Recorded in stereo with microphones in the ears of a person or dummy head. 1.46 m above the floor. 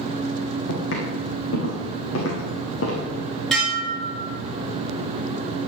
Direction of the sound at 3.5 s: Centre (ahead or behind).